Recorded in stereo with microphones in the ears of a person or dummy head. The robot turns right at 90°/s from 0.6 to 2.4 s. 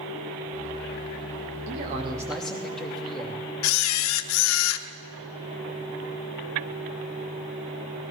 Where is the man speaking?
60° right, 2.5 m; by 3.4 s 5° left, 2.5 m.